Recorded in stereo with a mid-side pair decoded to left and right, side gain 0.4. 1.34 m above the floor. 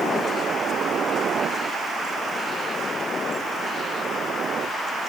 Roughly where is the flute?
No flute in this recording.